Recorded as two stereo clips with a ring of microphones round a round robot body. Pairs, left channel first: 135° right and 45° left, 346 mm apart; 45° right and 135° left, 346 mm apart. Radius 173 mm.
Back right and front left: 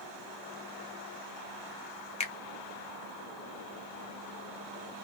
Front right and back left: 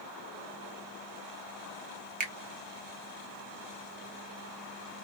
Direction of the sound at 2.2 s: 175° left.